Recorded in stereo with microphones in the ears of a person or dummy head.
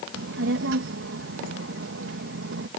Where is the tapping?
No tapping in this recording.